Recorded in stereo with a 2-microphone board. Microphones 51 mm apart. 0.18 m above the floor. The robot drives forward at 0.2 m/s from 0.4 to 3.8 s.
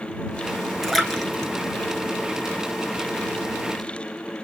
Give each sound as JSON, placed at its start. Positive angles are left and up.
{"t": 0.8, "sound": "a splash", "side_deg": 0, "distance_m": 0.9}